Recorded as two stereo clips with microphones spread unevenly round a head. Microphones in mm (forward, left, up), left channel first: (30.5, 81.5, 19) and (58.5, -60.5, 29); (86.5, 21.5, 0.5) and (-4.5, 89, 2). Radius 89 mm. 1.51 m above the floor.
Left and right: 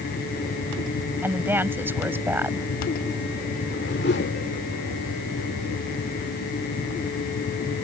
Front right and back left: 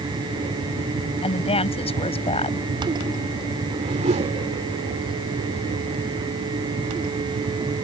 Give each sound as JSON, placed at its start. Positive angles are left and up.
{"t": 1.2, "sound": "a woman speaking", "azimuth_deg": -5}
{"t": 3.7, "sound": "a whoosh", "azimuth_deg": 135}